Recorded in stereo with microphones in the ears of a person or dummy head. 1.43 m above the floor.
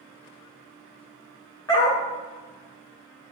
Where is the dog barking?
20° left (ahead or behind), 1.3 m.